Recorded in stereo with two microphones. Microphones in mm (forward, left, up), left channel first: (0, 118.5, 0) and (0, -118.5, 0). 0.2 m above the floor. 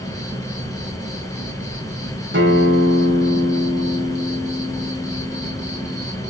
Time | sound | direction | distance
0.0 | an insect | 15° left (ahead or behind) | 0.9 m
2.3 | a guitar | 50° right (ahead or behind) | 0.7 m